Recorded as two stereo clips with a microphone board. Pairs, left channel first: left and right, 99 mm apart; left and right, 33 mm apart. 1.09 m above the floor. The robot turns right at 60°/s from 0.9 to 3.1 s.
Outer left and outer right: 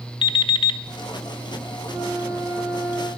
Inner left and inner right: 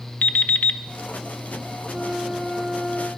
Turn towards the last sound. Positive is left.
turn(degrees=15)